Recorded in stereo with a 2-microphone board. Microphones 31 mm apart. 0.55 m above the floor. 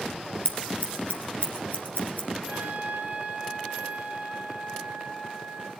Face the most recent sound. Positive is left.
turn(degrees=-70)  # may be behind; listen again after turning